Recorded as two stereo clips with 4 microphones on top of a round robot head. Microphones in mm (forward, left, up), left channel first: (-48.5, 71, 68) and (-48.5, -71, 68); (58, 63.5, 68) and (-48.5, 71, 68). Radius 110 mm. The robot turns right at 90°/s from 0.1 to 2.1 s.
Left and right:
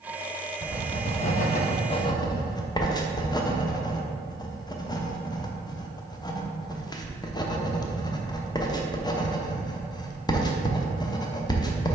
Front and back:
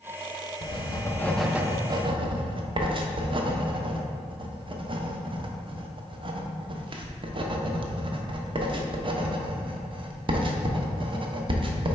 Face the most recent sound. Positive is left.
turn(degrees=150)